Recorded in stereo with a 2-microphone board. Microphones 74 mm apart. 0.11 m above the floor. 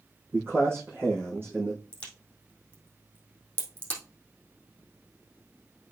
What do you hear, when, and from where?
0.3 s a man speaking: 30° right (ahead or behind), 4 m
1.9 s a crack: 20° left (ahead or behind), 3.5 m